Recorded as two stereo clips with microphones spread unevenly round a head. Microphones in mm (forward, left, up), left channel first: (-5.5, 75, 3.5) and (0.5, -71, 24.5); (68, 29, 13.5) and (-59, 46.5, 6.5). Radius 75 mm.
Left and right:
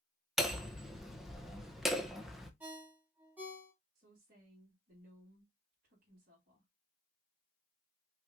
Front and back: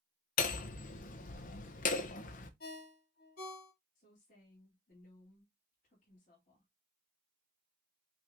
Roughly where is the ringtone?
Ahead.